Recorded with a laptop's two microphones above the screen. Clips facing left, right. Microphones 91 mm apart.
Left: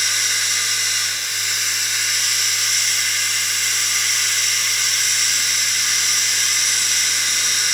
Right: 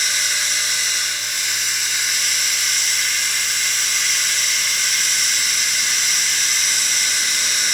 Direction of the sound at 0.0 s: 50° left (ahead or behind).